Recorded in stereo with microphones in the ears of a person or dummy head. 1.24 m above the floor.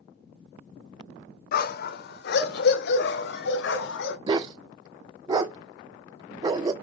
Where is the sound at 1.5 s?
60° left (ahead or behind), 1.5 m; by 4.2 s 75° left (ahead or behind), 2.5 m.